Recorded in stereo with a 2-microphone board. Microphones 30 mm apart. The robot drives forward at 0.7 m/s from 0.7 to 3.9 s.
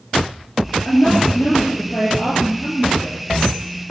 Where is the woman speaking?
65° left (ahead or behind), 3.5 m; by 3.2 s 50° left (ahead or behind), 4.5 m.